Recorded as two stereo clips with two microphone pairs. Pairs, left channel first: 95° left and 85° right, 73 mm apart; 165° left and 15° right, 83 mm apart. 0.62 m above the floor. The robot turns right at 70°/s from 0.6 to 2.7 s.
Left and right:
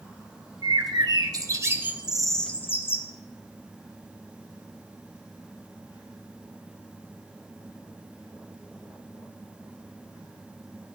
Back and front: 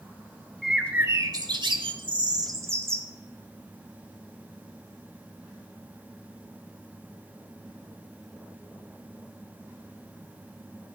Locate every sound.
0.6 s a bird: 105° right, 1.3 m; by 3.1 s 40° left, 1.3 m